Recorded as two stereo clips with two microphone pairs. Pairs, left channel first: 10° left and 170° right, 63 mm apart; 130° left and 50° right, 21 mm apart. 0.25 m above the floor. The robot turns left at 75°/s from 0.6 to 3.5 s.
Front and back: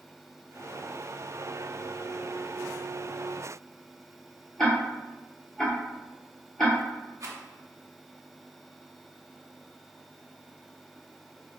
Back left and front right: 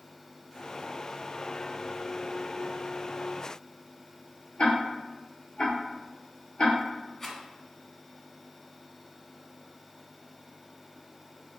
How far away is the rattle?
About 0.8 m.